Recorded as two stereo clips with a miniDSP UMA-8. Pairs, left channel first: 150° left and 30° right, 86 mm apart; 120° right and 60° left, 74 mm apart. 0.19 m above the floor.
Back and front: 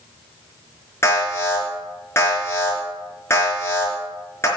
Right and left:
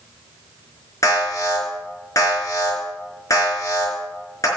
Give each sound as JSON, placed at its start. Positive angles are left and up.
{"t": 1.0, "sound": "an alarm", "azimuth_deg": -155, "distance_m": 4.0}